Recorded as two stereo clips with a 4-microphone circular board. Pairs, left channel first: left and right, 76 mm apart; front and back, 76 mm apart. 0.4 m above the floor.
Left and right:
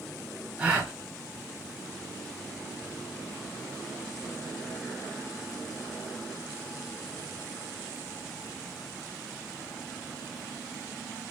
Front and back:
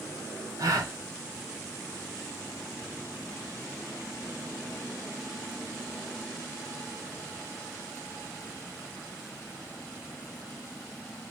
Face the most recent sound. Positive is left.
turn(degrees=-160)